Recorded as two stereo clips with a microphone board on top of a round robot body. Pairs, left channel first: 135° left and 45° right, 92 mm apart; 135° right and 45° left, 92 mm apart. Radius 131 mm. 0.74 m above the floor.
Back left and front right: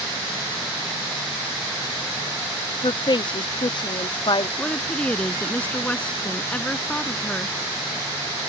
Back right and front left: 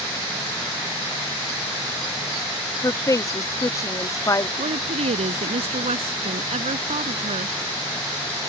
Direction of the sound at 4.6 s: 55° left.